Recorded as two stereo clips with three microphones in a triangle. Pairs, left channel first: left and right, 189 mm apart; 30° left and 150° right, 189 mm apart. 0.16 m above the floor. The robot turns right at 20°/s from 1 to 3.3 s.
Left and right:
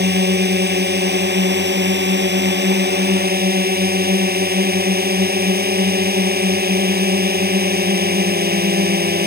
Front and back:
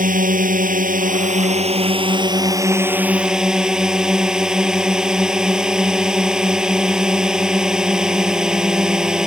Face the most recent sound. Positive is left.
turn(degrees=-65)